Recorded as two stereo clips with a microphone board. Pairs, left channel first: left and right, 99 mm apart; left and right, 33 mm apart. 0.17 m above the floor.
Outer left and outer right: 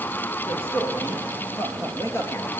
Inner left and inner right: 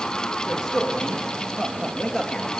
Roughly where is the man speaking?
Left.